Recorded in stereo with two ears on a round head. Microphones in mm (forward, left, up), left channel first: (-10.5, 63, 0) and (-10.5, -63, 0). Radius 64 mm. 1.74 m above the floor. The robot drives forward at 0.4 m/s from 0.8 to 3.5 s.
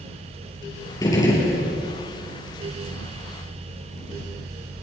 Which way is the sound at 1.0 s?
25° left (ahead or behind).